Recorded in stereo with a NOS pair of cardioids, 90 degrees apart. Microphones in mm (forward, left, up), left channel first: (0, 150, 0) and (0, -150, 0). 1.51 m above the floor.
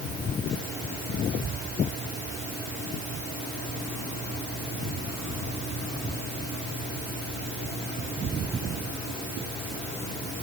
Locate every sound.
Only background noise.